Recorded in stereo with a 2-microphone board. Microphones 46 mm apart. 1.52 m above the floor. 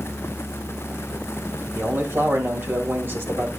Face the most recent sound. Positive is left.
turn(degrees=-55)  # may be behind; listen again after turning